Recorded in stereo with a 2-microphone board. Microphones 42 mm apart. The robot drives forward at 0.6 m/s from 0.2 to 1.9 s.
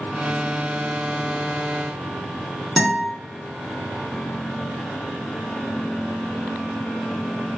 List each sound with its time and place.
2.8 s a guitar: 5° left (ahead or behind), 1.4 m